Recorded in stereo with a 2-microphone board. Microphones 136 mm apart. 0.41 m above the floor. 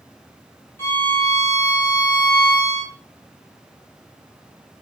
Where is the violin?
20° left (ahead or behind), 3 m.